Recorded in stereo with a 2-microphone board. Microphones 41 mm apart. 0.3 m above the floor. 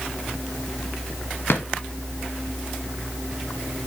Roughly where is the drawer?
Left.